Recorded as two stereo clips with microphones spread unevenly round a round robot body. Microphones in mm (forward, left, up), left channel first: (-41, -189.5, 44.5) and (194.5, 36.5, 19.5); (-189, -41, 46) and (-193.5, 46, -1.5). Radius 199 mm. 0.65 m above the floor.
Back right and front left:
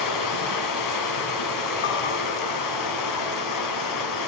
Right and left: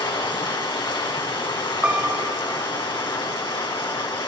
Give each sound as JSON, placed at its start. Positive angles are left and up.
{"t": 0.0, "sound": "running water", "azimuth_deg": -115, "distance_m": 5.0}
{"t": 1.8, "sound": "a piano", "azimuth_deg": 165, "distance_m": 1.5}